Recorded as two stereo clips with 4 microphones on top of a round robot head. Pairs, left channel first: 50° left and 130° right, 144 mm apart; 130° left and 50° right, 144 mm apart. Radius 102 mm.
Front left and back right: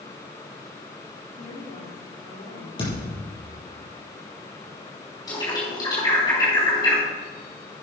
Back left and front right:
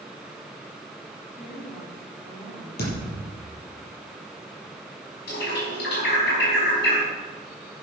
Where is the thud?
110° left, 5.5 m.